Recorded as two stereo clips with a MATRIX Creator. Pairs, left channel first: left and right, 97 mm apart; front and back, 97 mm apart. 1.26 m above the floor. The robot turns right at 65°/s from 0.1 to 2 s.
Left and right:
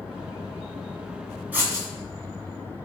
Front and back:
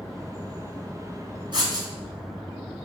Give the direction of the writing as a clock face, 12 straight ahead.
5 o'clock.